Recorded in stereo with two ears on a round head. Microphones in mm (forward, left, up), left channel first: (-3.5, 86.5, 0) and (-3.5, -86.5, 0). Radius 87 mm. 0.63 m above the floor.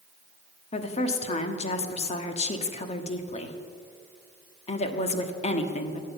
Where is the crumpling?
I don't hear crumpling.